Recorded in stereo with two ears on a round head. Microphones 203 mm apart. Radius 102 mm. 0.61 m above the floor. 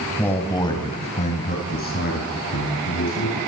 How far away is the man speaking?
About 3.5 m.